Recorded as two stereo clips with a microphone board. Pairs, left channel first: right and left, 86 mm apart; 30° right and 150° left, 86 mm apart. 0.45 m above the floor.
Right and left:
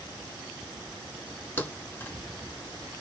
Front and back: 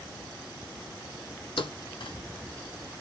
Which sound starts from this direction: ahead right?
A thud, at 1.6 s.